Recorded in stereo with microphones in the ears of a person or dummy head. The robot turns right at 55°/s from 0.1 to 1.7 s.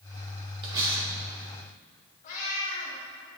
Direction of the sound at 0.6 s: 30° right (ahead or behind).